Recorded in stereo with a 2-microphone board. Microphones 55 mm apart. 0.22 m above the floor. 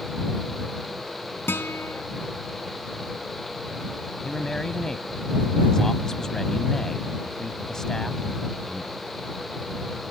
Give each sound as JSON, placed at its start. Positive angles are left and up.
{"t": 1.5, "sound": "a guitar", "side_deg": 45}
{"t": 4.2, "sound": "a man speaking", "side_deg": 10}